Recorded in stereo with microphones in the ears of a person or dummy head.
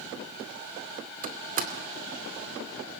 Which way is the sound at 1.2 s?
45° right (ahead or behind).